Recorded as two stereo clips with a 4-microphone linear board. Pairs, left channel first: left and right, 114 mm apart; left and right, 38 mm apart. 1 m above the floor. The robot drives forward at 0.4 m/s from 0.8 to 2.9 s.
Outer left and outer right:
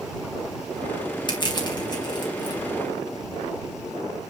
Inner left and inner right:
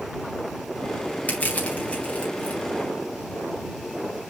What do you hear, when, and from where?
1.3 s crushing: 40° left (ahead or behind), 3.5 m; by 2.6 s 35° left (ahead or behind), 4 m